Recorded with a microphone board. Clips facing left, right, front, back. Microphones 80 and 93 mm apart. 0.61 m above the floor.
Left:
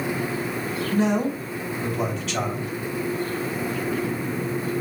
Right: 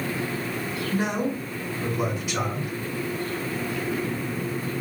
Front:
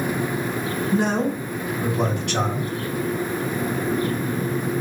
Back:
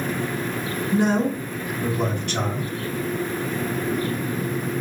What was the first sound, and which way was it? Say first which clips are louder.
A man speaking: left 4 dB, back 2 dB; 10° right.